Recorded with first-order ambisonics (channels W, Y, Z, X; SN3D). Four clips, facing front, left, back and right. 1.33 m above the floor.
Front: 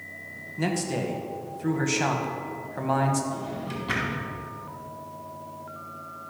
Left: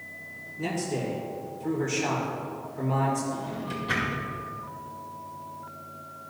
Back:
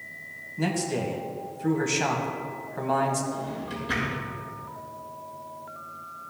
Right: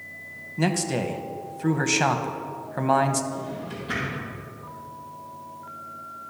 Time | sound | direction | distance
0.6 | a man speaking | 85° right | 1.1 m
3.3 | a drawer | 25° left | 4 m